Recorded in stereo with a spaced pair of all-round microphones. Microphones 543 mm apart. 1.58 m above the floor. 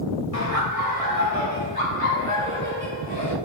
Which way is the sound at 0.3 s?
85° left.